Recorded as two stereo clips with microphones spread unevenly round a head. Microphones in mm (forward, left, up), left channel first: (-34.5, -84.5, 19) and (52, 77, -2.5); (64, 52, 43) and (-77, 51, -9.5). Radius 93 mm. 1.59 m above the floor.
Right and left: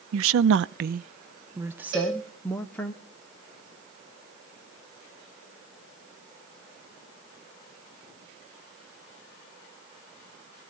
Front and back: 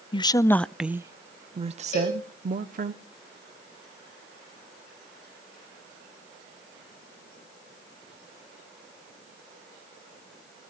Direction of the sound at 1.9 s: 35° left.